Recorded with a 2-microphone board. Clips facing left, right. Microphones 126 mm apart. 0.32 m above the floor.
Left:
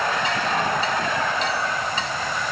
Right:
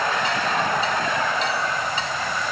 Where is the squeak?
No squeak in this recording.